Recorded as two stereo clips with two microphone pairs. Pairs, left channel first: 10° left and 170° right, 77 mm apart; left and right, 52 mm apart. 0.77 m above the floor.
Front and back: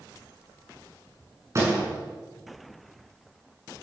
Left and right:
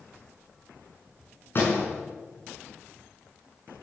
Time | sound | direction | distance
1.6 | a door slam | 140° left | 6.5 m